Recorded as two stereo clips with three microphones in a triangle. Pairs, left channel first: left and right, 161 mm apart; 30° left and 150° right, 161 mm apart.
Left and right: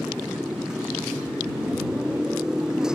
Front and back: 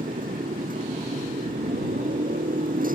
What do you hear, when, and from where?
0.0 s a motorcycle: 175° right